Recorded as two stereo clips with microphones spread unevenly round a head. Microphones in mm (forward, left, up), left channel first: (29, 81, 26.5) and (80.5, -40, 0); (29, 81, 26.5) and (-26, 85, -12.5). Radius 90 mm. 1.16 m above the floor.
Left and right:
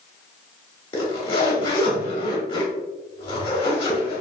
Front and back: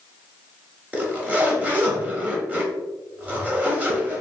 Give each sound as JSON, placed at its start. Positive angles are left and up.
{"t": 0.9, "sound": "a zipper", "azimuth_deg": 85, "distance_m": 1.1}